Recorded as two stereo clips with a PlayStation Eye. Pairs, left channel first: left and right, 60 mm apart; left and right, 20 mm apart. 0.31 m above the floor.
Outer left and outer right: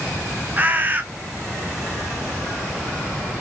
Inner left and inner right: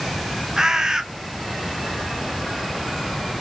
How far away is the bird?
About 0.6 m.